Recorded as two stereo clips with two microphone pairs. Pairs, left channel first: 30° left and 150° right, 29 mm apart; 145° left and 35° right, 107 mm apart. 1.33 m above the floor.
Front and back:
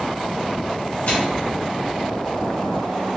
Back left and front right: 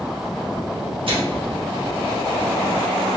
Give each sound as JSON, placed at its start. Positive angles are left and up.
{"t": 1.1, "sound": "a microwave", "azimuth_deg": -10, "distance_m": 1.1}